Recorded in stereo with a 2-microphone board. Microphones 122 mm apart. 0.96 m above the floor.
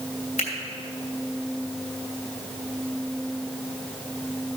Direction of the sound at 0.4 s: 85° left.